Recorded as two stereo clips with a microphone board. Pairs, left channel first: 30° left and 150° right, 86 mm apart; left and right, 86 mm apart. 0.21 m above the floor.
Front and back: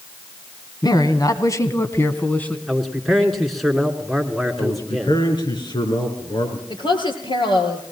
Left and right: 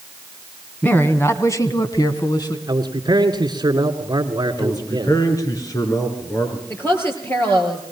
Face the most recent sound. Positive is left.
turn(degrees=30)